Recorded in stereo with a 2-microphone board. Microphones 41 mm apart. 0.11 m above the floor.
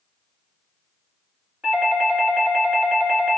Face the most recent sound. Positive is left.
turn(degrees=-25)  # may be behind; listen again after turning